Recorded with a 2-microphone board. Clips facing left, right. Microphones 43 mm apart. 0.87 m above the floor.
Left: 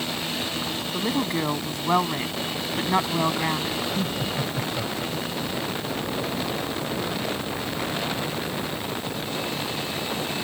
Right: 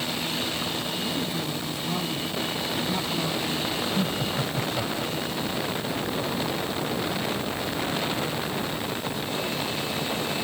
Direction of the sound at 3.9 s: 10° right (ahead or behind).